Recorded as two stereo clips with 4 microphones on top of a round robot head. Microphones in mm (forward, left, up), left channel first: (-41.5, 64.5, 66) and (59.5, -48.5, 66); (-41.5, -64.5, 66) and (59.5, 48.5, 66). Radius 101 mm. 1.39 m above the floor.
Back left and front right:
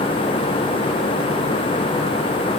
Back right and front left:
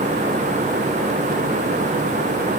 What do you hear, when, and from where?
Only background noise.